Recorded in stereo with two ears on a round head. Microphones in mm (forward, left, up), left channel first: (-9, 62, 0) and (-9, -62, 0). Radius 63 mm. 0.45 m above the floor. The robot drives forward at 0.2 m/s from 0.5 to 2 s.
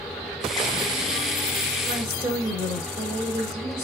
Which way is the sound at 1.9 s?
20° right (ahead or behind).